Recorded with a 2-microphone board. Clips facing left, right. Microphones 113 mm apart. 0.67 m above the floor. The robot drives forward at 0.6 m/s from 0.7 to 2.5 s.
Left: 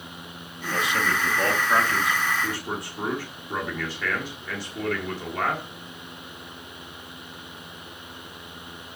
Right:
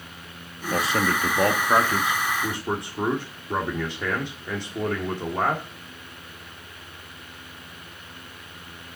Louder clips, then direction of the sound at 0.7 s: Right 2 dB; 35° right (ahead or behind).